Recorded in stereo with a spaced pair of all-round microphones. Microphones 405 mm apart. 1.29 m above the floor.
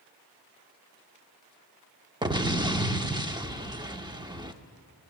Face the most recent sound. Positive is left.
turn(degrees=-10)  # may be behind; listen again after turning